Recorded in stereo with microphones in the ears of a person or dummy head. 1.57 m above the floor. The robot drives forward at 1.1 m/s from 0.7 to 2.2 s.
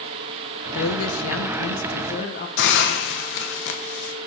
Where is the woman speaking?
65° left (ahead or behind), 1.2 m; by 2.5 s 45° left (ahead or behind), 1.6 m.